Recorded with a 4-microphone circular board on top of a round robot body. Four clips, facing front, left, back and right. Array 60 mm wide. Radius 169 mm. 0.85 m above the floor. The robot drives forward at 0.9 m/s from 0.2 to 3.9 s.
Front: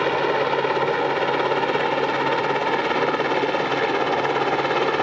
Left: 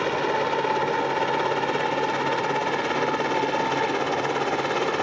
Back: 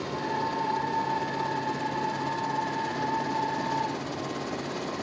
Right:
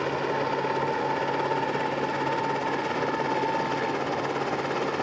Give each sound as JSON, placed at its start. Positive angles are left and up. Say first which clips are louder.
{"t": 0.0, "sound": "a helicopter", "louder": "left 3 dB, front 10 dB", "azimuth_deg": 15}